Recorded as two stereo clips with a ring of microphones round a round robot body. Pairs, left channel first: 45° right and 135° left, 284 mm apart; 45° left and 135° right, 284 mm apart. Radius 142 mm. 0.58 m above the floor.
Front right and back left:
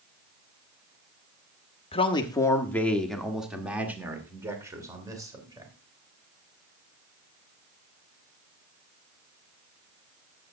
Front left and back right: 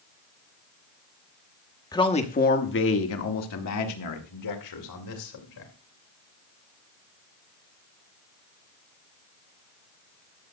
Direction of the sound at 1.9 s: 10° right.